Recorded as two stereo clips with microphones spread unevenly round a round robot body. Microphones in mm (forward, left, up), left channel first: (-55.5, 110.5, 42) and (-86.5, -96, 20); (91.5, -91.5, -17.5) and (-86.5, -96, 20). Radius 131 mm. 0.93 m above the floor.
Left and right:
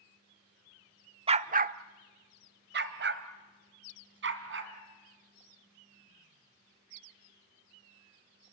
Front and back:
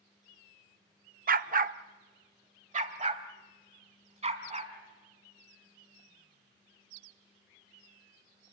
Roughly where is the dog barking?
Behind.